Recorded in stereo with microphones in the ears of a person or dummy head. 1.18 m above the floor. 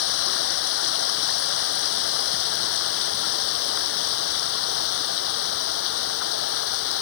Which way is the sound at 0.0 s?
75° left (ahead or behind).